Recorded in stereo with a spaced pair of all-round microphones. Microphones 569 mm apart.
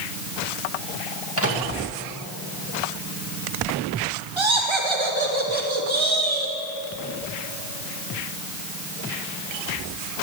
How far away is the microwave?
About 2.5 m.